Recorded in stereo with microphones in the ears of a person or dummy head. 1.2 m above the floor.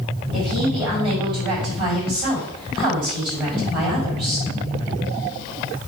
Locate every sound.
0.3 s a woman speaking: 30° right (ahead or behind), 5 m